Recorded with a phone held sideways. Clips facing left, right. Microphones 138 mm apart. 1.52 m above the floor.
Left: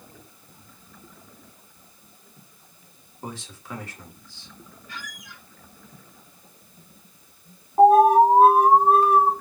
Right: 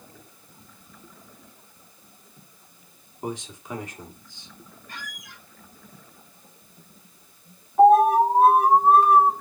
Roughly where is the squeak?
Right.